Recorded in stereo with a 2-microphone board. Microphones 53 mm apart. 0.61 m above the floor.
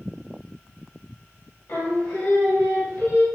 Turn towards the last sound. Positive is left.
turn(degrees=50)  # may be behind; listen again after turning